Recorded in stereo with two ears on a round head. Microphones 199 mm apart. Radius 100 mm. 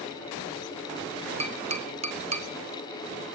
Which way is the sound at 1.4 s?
30° right (ahead or behind).